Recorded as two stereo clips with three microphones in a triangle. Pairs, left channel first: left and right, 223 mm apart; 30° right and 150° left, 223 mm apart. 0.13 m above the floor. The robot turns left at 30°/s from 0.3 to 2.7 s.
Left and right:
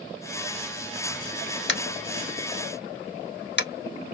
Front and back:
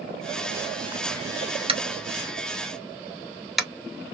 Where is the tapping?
90° left, 0.8 m; by 3.7 s 60° left, 0.8 m.